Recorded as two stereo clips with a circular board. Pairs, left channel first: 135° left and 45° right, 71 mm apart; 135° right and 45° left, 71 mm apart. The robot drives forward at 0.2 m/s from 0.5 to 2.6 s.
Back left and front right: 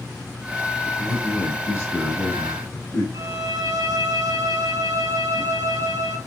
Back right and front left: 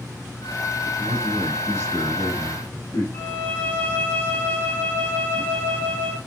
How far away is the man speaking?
About 2 m.